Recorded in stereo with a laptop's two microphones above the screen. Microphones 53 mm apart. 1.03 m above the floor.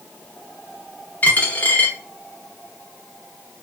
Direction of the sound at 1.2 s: 30° left (ahead or behind).